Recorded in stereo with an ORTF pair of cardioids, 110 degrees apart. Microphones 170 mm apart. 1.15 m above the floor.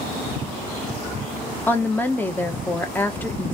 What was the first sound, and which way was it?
A woman speaking, 10° left.